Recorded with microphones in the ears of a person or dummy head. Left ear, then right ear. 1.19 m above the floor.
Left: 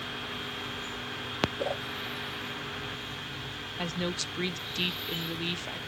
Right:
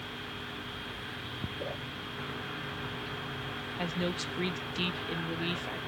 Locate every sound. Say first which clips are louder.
1.6 s a whoosh: left 6 dB; 30° left (ahead or behind), 0.7 m
3.8 s a woman speaking: left 1 dB; 5° right (ahead or behind), 0.5 m